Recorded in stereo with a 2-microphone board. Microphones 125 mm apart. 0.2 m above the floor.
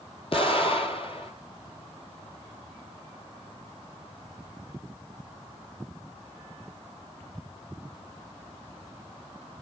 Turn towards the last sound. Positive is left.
turn(degrees=50)  # may be behind; listen again after turning